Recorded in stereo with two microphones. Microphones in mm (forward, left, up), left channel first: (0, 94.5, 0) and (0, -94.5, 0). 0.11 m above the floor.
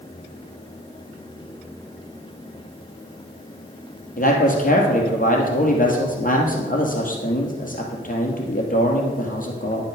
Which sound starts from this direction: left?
A man speaking, at 4.2 s.